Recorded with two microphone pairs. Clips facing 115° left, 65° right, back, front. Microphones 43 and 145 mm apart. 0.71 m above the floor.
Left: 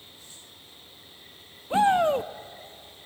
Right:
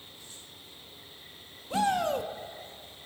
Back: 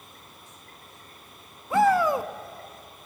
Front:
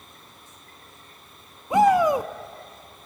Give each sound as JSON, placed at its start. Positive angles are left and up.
{"t": 1.7, "sound": "a shout", "azimuth_deg": 65, "distance_m": 0.6}